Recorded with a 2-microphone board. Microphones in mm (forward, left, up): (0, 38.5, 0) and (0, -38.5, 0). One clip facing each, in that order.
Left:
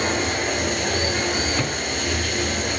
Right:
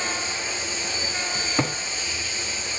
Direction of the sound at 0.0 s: 60° left (ahead or behind).